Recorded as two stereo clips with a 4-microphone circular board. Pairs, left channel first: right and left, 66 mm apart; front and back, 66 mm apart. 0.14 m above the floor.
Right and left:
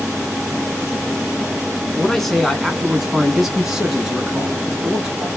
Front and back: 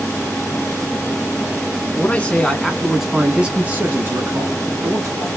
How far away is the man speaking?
About 1.2 m.